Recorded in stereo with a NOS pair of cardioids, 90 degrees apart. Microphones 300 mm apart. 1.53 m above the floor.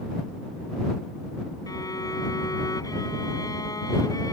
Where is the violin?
10° left.